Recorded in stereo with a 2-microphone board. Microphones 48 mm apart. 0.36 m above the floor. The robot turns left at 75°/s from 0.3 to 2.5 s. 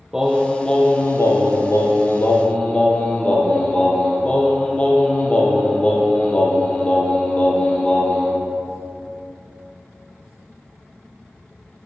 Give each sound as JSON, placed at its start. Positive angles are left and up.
{"t": 0.1, "sound": "singing", "azimuth_deg": -170, "distance_m": 4.0}